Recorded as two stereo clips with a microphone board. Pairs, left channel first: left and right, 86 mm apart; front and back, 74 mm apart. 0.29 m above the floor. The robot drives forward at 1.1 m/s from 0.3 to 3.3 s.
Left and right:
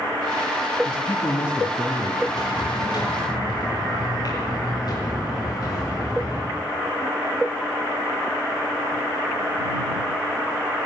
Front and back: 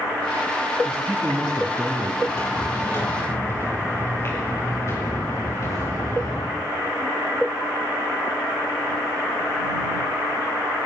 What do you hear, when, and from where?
0.8 s a man speaking: 90° left, 3 m; by 2.1 s 120° left, 3 m
2.2 s footsteps: 55° left, 7.5 m; by 6.6 s 45° left, 6.5 m